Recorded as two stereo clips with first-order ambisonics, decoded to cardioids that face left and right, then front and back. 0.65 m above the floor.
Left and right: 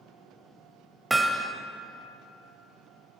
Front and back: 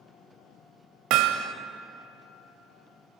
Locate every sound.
1.1 s hammering: 170° right, 0.7 m